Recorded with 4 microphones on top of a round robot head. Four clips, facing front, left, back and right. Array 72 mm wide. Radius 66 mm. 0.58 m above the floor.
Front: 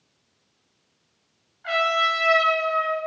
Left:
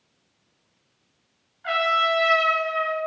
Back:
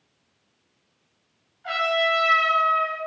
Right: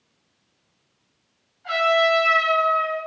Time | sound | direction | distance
1.6 | a trumpet | 60° left | 3 m